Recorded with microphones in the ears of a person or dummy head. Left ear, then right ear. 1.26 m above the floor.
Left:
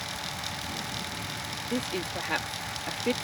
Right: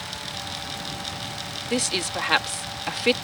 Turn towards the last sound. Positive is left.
turn(degrees=-50)  # may be behind; listen again after turning